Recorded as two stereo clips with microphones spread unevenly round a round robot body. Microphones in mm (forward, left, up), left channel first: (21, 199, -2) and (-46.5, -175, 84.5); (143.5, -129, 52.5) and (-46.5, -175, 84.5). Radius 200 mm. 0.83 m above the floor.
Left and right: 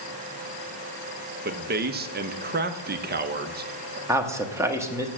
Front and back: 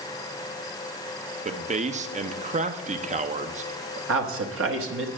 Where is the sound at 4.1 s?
175° left, 1.1 m.